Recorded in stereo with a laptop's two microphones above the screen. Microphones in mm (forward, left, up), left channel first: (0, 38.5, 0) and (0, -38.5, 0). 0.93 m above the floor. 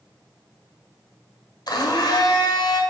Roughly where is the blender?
Left.